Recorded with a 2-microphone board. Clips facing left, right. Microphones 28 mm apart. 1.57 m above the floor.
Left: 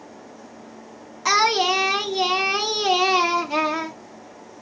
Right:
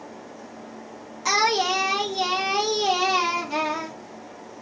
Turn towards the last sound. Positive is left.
turn(degrees=15)  # may be behind; listen again after turning